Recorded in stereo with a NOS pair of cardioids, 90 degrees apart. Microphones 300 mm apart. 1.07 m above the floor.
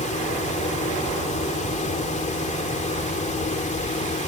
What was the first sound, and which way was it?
A fan, 25° left.